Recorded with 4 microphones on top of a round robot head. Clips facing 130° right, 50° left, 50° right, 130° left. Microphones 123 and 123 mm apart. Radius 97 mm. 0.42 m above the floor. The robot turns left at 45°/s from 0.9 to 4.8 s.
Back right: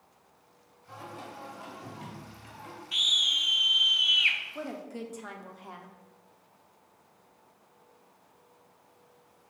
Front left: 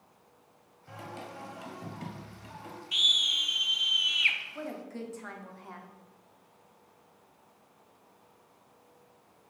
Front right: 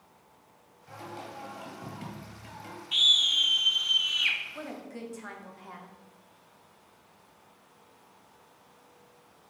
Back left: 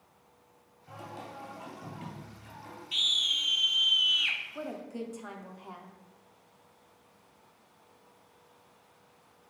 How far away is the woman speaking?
About 0.8 m.